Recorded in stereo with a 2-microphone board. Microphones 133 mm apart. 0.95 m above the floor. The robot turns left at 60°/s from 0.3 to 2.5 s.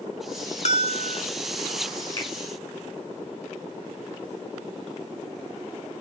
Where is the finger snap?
35° left (ahead or behind), 7 m; by 2.3 s 30° left (ahead or behind), 7 m.